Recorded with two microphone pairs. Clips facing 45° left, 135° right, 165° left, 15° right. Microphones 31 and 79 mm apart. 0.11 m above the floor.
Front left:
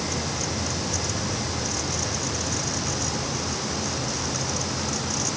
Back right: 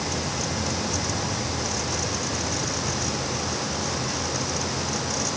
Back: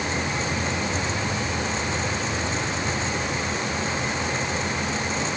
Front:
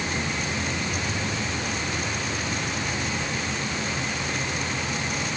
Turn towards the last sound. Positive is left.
No sound to turn to.